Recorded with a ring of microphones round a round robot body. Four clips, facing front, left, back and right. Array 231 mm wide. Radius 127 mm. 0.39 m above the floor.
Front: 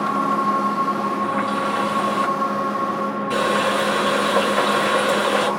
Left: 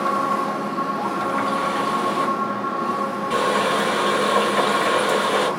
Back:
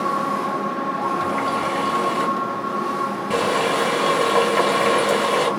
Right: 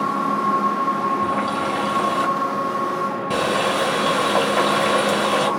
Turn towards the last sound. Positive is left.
turn(degrees=-130)